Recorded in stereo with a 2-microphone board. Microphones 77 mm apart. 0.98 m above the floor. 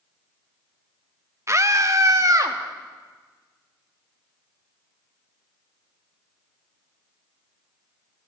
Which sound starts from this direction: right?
A scream, at 1.5 s.